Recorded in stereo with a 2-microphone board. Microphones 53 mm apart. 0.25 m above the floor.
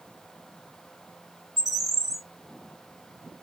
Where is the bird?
70° left (ahead or behind), 1.2 m.